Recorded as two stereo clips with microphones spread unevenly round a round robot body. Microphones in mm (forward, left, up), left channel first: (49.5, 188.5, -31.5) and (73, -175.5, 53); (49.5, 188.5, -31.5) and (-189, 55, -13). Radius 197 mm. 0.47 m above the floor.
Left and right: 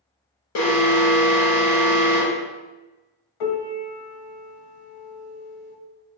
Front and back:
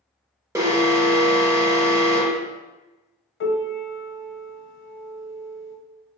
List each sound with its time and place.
0.6 s an alarm: 130° left, 1.2 m
3.4 s a piano: 75° left, 1.2 m